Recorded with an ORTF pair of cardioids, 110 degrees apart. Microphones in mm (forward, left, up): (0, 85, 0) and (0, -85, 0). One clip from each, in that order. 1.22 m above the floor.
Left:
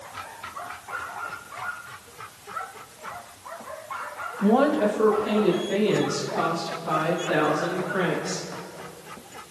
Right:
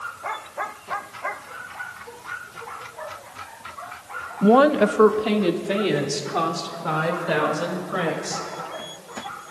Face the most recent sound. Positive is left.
turn(degrees=-75)